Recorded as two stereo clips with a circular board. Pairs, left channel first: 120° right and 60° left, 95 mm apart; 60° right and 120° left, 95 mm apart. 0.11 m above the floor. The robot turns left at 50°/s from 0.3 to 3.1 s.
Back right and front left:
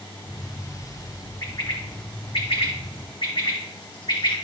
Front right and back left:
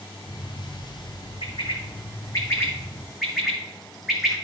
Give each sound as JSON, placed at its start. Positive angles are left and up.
{"t": 1.4, "sound": "a bird", "azimuth_deg": -65, "distance_m": 2.5}